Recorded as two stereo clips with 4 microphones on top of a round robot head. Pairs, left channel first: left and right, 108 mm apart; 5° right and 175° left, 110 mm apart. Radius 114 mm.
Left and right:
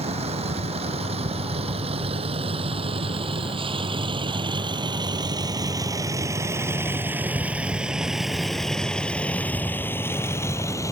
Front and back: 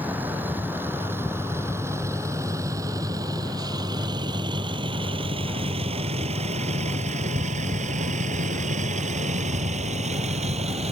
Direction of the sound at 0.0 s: 110° right.